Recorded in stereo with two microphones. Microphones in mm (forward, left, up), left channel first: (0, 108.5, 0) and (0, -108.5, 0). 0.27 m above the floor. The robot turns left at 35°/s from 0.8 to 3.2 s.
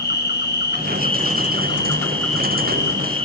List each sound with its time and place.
0.0 s an insect: 55° left, 4.5 m; by 3.2 s 30° right, 4.5 m